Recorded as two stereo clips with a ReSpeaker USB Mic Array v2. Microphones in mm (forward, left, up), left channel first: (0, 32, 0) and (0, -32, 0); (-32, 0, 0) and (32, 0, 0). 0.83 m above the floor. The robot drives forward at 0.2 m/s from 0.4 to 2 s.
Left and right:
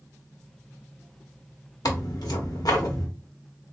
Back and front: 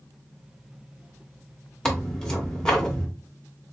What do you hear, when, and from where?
1.9 s tearing paper: 100° left, 1.1 m